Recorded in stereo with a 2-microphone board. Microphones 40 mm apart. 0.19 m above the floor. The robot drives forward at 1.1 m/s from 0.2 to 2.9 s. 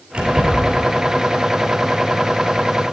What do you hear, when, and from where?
0.1 s keys jangling: 20° right (ahead or behind), 3 m; by 0.8 s 15° right (ahead or behind), 3.5 m